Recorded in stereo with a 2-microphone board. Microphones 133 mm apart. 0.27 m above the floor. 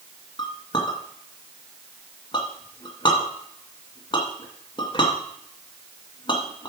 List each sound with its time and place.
0.4 s a clink: 35° left (ahead or behind), 2 m